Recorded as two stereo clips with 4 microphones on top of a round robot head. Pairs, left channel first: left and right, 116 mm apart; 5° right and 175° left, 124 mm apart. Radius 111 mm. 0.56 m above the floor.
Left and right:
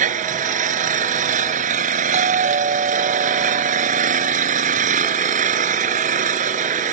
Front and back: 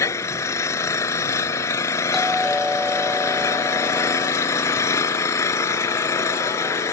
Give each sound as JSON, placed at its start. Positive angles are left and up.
{"t": 0.0, "sound": "an engine running", "azimuth_deg": -80}
{"t": 2.1, "sound": "a doorbell", "azimuth_deg": -95}